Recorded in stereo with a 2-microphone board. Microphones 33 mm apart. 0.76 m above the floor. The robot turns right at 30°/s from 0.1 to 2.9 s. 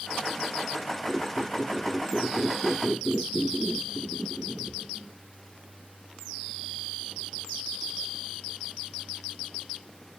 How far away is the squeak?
About 2.5 m.